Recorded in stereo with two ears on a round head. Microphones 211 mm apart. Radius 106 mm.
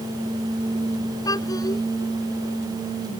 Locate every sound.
1.2 s a child speaking: 15° left (ahead or behind)